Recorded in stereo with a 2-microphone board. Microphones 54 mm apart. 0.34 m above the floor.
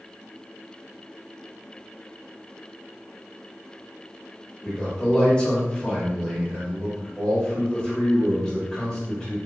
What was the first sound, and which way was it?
A man speaking, 20° left (ahead or behind).